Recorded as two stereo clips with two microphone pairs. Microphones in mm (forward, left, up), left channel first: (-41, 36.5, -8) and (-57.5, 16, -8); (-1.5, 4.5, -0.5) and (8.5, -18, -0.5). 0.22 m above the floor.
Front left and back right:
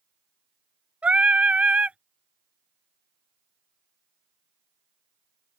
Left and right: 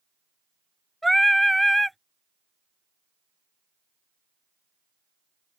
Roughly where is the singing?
Behind.